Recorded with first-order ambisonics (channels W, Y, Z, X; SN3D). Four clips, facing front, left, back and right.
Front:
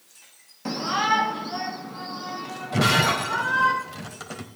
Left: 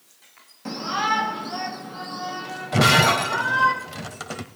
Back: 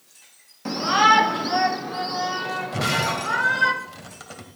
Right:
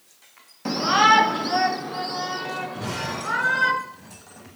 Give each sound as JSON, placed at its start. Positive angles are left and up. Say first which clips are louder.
{"t": 0.7, "sound": "a shout", "louder": "right 7 dB, back 6 dB", "azimuth_deg": -95, "distance_m": 0.8}
{"t": 2.7, "sound": "breaking glass", "louder": "left 13 dB, front 5 dB", "azimuth_deg": 85, "distance_m": 1.9}